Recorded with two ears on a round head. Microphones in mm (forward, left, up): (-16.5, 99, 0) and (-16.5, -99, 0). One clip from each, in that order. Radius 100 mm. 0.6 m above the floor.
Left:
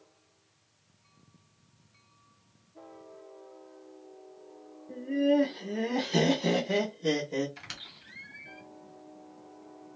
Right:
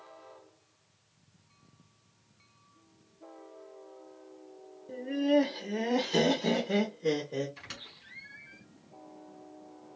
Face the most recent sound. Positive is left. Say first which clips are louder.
# left 2 dB
turn(degrees=30)  # may be behind; listen again after turning